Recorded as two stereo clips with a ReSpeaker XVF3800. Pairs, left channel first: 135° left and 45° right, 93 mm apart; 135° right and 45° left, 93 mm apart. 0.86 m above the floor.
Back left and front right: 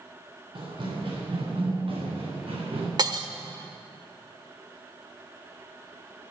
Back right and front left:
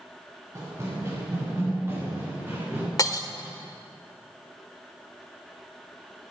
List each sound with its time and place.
0.6 s running footsteps: 10° right, 5 m; by 2.9 s 20° right, 6 m
3.0 s breaking glass: 85° right, 0.9 m